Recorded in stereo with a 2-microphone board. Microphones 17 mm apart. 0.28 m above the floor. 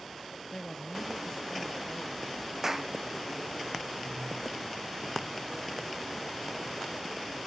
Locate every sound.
0.5 s a man speaking: 25° left (ahead or behind)
2.6 s a clap: 25° right (ahead or behind)